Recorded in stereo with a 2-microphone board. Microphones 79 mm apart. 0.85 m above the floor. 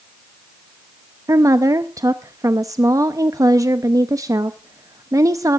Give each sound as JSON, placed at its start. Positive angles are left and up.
{"t": 1.3, "sound": "a woman speaking", "side_deg": -45, "distance_m": 0.6}